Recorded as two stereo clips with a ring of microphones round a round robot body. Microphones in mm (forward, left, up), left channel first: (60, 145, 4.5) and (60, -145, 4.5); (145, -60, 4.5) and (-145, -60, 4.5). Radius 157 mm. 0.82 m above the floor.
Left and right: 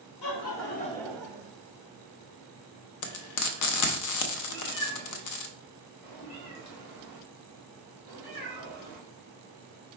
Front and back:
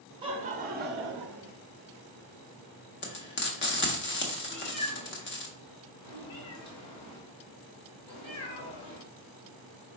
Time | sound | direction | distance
0.2 | laughter | 105° left | 0.8 m
3.0 | frying | 60° left | 0.7 m
4.5 | a cat meowing | 20° left | 2 m